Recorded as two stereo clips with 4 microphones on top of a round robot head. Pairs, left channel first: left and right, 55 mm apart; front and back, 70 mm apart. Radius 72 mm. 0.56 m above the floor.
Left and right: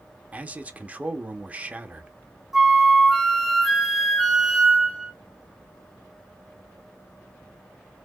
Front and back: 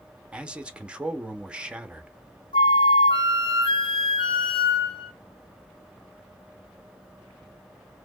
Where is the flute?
10° right, 1.0 m.